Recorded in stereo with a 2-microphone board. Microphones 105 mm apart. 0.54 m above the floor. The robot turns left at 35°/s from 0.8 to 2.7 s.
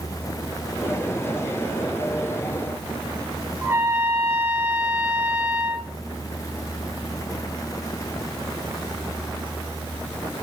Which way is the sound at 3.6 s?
25° right (ahead or behind).